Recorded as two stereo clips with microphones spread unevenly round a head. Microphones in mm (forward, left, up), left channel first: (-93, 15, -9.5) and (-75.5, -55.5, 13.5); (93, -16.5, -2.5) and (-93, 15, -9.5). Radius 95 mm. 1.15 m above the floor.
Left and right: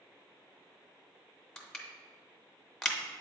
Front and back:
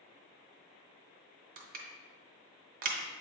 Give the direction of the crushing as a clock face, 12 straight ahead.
5 o'clock.